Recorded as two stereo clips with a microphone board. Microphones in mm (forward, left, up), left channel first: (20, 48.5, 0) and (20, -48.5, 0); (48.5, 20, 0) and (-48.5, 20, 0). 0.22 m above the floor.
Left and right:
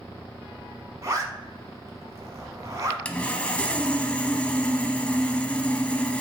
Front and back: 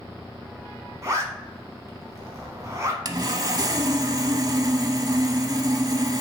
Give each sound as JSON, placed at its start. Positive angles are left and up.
{"t": 1.0, "sound": "a zipper", "azimuth_deg": -135, "distance_m": 1.1}
{"t": 3.0, "sound": "sawing", "azimuth_deg": 160, "distance_m": 0.5}